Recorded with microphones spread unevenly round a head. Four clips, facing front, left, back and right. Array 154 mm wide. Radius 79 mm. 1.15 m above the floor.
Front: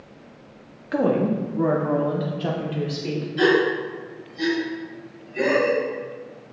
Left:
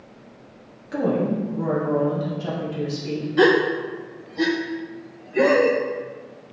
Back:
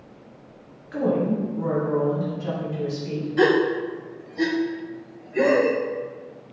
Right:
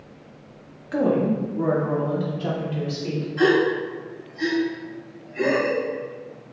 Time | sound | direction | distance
0.9 | a woman speaking | 10° right | 1.6 m
3.4 | a gasp | 120° left | 0.8 m